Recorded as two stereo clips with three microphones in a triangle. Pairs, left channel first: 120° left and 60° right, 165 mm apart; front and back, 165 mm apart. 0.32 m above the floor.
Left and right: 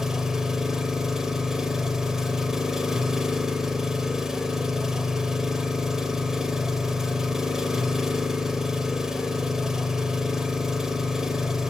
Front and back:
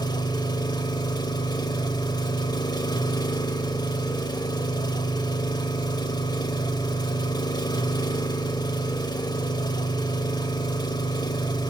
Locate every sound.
0.0 s an engine running: 25° left, 0.8 m